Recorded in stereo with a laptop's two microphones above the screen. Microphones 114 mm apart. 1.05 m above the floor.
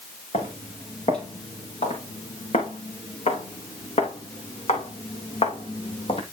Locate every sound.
0.3 s footsteps: 75° left (ahead or behind), 5 m; by 6.2 s 55° left (ahead or behind), 2.0 m